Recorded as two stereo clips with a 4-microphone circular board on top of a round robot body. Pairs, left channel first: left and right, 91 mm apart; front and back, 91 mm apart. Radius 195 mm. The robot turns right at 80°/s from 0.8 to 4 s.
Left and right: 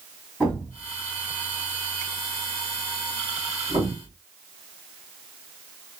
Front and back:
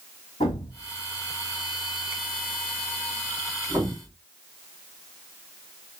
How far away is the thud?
About 0.6 m.